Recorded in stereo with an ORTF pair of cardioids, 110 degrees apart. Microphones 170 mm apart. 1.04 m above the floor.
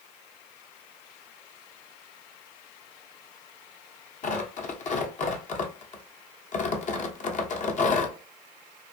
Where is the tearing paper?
50° left, 0.8 m.